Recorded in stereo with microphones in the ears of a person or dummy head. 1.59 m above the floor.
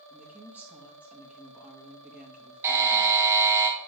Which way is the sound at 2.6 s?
15° right (ahead or behind).